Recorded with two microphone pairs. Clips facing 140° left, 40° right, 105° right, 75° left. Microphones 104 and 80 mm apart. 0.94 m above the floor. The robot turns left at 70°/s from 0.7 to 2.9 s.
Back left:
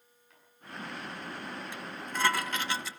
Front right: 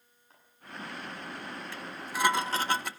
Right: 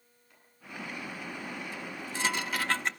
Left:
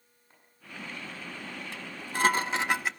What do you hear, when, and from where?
0.3 s chopping: 20° left, 8.5 m
1.7 s dishes clattering: 70° left, 0.6 m; by 2.9 s 15° right, 0.6 m